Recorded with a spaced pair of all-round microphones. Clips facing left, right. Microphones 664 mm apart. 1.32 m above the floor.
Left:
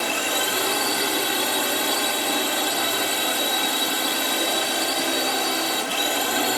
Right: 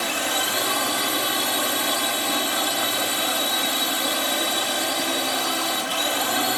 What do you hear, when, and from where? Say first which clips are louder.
0.0 s a drone: left 1 dB; 5° right (ahead or behind)